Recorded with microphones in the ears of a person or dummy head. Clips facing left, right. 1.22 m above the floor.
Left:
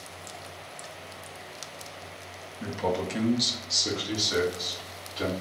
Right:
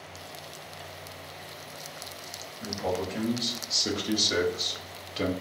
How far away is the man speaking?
About 0.7 m.